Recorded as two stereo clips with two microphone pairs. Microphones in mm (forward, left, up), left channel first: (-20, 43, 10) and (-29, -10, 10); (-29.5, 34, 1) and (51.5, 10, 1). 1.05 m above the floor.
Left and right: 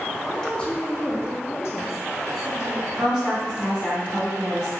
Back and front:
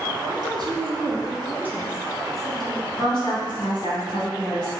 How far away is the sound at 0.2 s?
About 1.2 m.